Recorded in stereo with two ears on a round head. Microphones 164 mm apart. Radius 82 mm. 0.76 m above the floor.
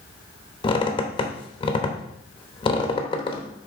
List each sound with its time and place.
0.6 s a squeak: 25° left (ahead or behind), 0.9 m